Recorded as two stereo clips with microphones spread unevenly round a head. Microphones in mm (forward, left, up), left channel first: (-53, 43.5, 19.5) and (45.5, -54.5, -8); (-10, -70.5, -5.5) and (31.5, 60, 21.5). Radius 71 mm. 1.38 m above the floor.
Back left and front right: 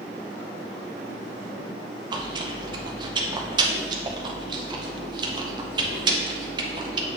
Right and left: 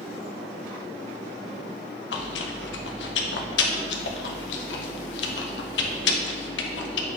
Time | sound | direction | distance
2.1 | chewing | 110° right | 0.7 m